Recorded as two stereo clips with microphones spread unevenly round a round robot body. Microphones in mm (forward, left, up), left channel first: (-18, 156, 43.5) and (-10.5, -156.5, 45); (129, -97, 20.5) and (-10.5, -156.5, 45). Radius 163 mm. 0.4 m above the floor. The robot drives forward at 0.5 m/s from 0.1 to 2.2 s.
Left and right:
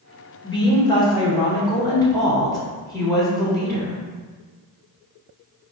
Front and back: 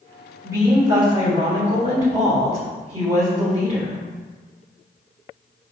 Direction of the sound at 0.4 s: 135° left.